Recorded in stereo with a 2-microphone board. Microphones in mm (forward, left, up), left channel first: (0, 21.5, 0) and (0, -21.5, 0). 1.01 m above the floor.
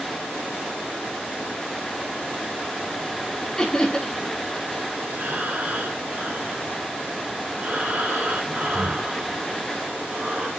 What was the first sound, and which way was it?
Laughter, 15° left (ahead or behind).